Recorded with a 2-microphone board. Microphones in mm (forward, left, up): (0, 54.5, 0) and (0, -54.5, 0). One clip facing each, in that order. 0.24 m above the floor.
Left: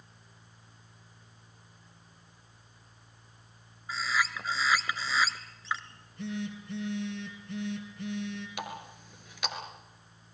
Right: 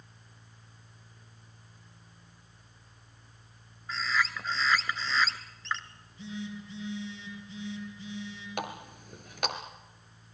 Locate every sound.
3.9 s a bird: 5° left (ahead or behind), 1.6 m
5.9 s a phone buzzing: 65° left (ahead or behind), 5 m
8.6 s a running tap: 50° right (ahead or behind), 3 m